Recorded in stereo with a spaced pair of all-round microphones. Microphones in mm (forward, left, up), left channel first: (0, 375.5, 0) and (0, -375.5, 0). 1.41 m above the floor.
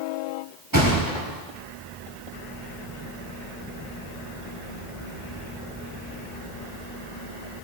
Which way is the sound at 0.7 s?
25° right (ahead or behind).